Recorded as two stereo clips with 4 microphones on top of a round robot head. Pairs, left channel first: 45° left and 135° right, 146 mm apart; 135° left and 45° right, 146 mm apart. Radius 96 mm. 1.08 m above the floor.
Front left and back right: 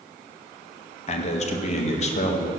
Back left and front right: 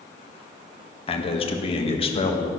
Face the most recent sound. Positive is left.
turn(degrees=85)